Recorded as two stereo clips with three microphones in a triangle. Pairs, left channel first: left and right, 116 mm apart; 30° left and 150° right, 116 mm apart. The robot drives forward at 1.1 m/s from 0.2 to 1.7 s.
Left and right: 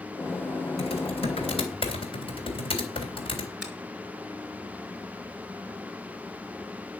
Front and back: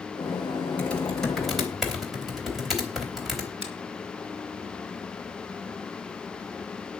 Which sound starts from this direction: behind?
A finger snap, at 3.6 s.